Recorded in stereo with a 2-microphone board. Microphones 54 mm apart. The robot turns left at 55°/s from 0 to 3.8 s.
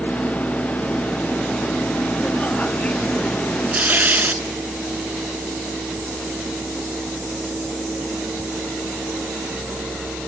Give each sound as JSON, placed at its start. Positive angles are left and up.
{"t": 3.7, "sound": "tearing paper", "side_deg": -25, "distance_m": 0.7}